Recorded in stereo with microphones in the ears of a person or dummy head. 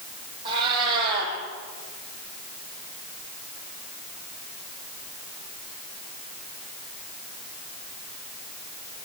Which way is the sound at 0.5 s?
30° right (ahead or behind).